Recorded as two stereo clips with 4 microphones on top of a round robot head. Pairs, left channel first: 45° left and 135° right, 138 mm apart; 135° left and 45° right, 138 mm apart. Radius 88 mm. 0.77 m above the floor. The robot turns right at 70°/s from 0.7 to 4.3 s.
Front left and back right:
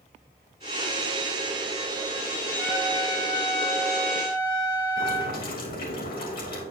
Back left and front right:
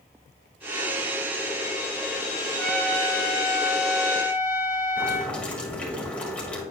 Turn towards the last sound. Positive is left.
turn(degrees=55)